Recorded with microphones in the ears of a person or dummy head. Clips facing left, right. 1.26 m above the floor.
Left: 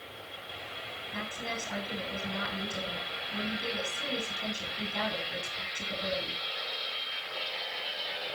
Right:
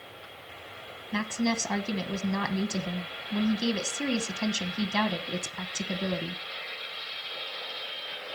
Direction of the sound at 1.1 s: 80° right.